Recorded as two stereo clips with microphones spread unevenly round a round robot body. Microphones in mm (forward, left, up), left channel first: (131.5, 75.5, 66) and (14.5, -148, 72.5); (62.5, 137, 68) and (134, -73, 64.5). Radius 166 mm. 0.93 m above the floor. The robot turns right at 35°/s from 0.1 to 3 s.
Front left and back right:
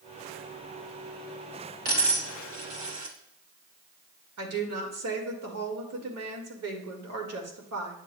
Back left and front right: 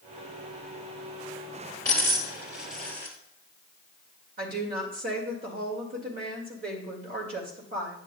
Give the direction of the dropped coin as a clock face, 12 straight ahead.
6 o'clock.